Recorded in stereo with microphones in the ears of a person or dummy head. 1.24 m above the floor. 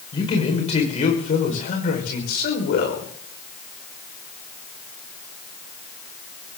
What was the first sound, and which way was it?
A man speaking, 25° left (ahead or behind).